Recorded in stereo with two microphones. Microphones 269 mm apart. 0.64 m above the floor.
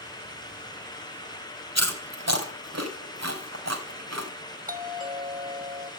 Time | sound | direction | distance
1.8 | chewing | 70° right (ahead or behind) | 3.5 m
4.7 | a doorbell | 30° right (ahead or behind) | 1.6 m